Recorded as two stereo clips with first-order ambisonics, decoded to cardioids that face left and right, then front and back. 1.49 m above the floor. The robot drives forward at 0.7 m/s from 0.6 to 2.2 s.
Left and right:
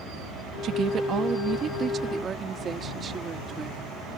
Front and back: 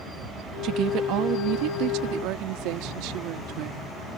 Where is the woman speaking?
140° right; by 4.2 s 155° right.